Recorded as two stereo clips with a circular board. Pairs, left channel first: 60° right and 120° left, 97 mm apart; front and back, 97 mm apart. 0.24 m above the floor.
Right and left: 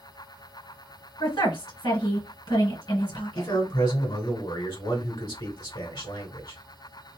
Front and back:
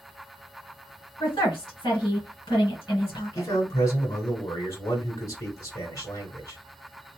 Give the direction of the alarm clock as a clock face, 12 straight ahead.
I don't hear an alarm clock.